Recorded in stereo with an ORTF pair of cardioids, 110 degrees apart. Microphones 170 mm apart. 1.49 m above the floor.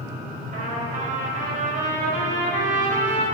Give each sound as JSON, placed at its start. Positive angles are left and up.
{"t": 0.5, "sound": "a trumpet", "azimuth_deg": -55, "distance_m": 4.0}